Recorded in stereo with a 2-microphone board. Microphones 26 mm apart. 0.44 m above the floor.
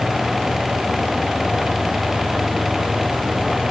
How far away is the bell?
I don't hear a bell.